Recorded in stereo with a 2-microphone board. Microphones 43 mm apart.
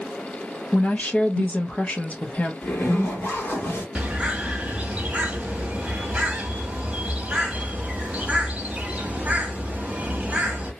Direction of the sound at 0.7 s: 30° left (ahead or behind).